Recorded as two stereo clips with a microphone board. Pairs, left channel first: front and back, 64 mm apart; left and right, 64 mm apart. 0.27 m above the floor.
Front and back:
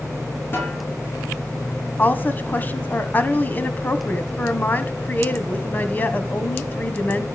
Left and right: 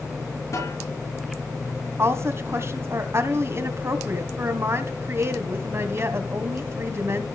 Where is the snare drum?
55° left, 6 m.